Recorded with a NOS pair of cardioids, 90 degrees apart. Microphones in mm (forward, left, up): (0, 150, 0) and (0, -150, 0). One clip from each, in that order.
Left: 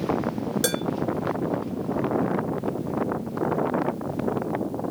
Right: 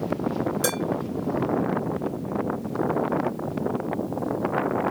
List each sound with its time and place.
0.6 s dishes clattering: 25° left, 1.7 m